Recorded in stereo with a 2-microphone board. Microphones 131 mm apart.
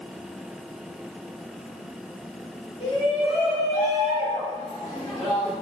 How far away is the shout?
About 4.5 m.